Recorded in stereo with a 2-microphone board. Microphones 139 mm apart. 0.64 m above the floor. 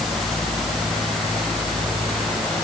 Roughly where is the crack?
No crack in this recording.